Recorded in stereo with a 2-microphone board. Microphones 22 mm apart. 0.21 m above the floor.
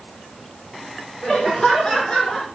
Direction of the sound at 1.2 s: 35° left (ahead or behind).